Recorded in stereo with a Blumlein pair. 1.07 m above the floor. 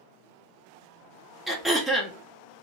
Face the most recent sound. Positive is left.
turn(degrees=0)